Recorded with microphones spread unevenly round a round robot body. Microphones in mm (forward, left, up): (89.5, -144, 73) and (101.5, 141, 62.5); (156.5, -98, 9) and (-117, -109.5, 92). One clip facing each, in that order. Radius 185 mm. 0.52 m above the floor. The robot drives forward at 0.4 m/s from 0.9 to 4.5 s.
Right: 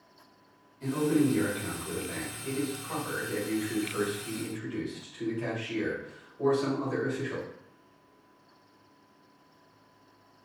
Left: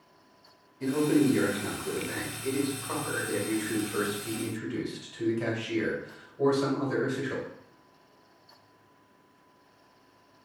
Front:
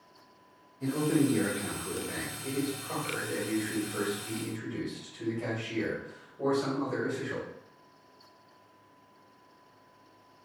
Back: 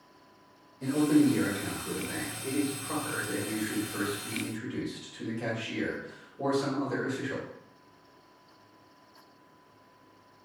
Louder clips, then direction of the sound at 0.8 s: Left 2 dB, back 4 dB; 80° left.